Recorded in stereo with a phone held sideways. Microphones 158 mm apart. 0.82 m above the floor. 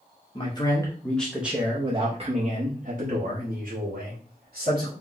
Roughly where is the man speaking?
Left.